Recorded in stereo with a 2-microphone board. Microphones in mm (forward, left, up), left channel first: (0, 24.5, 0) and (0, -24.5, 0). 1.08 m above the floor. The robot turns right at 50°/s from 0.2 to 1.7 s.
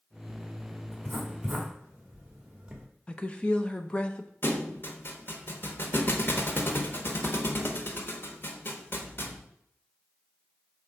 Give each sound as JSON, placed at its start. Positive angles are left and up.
{"t": 0.9, "sound": "writing", "side_deg": 15, "distance_m": 1.4}
{"t": 3.1, "sound": "a woman speaking", "side_deg": 20, "distance_m": 0.7}
{"t": 4.4, "sound": "a thud", "side_deg": 45, "distance_m": 0.9}